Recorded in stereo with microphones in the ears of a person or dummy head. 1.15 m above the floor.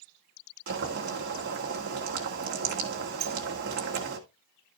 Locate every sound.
0.7 s boiling: 60° right (ahead or behind), 1.9 m
3.2 s a sliding door: 55° right (ahead or behind), 1.6 m